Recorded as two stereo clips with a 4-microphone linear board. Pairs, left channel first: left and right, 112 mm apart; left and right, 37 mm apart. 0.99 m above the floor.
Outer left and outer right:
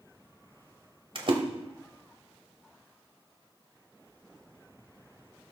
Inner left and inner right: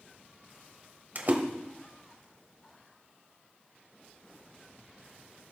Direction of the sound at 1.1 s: 50° right (ahead or behind).